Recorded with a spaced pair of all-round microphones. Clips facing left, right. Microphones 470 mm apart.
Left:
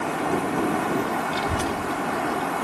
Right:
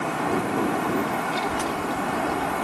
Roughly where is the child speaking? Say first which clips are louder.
Left 1 dB; left.